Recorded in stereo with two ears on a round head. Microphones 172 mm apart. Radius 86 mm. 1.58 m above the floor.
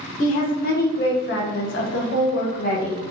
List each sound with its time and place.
0.2 s a woman speaking: 45° left (ahead or behind), 1.3 m; by 3.0 s 30° left (ahead or behind), 1.0 m